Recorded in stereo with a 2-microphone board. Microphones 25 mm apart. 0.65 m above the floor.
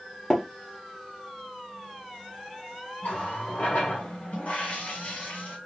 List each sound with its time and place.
0.3 s tapping: 35° left (ahead or behind), 1.6 m
3.0 s a running tap: 70° left (ahead or behind), 1.7 m